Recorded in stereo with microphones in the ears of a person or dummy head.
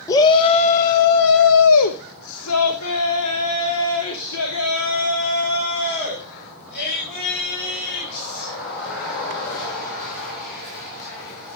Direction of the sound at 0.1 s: 20° left (ahead or behind).